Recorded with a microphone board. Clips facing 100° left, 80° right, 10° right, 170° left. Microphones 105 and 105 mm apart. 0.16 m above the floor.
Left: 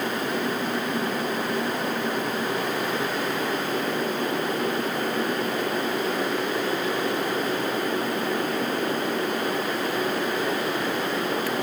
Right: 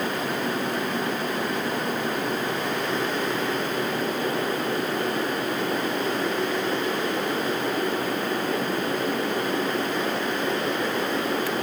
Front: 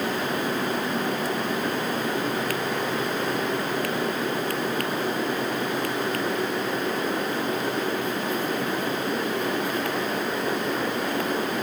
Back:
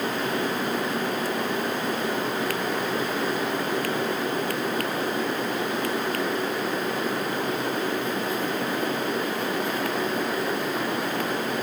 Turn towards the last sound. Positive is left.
No sound to turn to.